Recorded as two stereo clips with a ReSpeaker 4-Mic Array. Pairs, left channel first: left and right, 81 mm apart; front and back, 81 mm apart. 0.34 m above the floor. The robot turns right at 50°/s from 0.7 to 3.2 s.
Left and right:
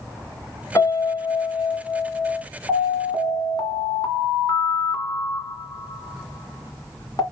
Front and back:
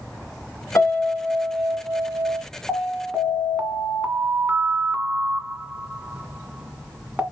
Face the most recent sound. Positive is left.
turn(degrees=105)